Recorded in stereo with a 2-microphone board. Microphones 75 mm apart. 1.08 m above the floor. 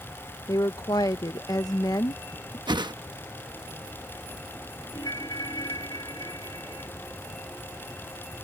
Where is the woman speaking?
55° left (ahead or behind).